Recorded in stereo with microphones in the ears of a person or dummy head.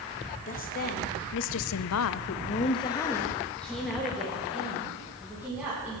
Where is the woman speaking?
40° left (ahead or behind), 1.2 m; by 6.0 s 10° right (ahead or behind), 2.5 m.